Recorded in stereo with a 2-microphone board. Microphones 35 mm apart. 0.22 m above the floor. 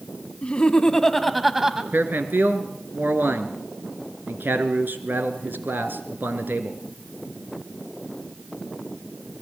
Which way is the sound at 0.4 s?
35° left (ahead or behind).